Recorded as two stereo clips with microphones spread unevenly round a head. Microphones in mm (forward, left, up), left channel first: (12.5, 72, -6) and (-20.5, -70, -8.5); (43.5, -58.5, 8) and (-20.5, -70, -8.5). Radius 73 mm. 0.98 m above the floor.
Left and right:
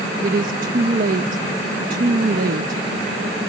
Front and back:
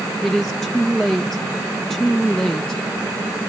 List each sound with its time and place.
0.2 s a woman speaking: 80° right